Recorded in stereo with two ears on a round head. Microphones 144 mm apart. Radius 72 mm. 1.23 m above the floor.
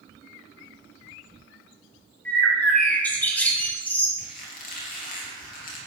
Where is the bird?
10° left (ahead or behind), 2 m.